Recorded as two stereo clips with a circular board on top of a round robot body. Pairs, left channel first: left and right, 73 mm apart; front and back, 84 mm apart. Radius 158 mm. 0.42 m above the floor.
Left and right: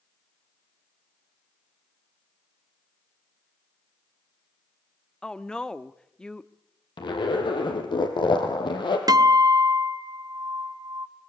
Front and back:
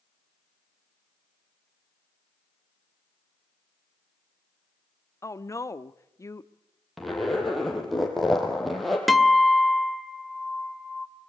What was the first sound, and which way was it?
A woman speaking, 15° left.